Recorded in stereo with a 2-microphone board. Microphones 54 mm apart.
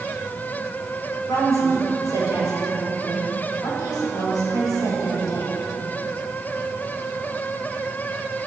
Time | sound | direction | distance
1.3 | a woman speaking | 85° left | 3.5 m